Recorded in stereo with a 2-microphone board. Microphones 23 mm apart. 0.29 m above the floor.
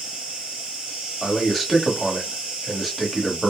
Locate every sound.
0.0 s an insect: 65° right (ahead or behind), 1.7 m
1.2 s a man speaking: 5° right (ahead or behind), 1.2 m